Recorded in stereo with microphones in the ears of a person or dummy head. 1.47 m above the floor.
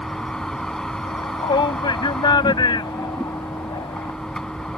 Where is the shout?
25° left (ahead or behind).